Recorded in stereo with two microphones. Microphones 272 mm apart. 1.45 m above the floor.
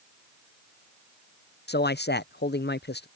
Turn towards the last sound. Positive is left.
turn(degrees=40)  # may be behind; listen again after turning